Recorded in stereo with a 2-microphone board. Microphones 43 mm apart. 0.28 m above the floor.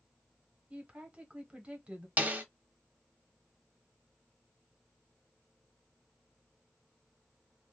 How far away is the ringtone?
I don't hear a ringtone.